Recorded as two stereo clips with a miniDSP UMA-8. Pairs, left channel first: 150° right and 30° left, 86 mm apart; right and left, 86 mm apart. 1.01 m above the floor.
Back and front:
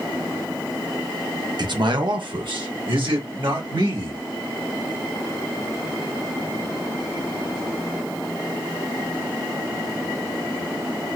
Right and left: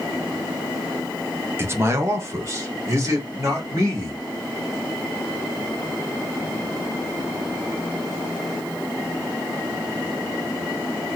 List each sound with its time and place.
1.6 s a man speaking: 35° left, 0.8 m; by 4.2 s 40° left, 2 m